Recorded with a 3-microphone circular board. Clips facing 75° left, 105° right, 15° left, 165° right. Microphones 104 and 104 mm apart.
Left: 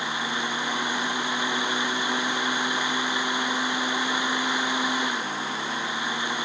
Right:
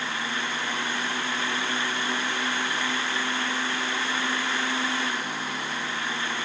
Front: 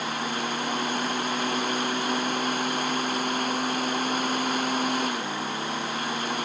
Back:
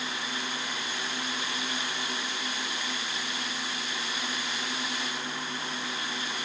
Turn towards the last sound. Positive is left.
No sound to turn to.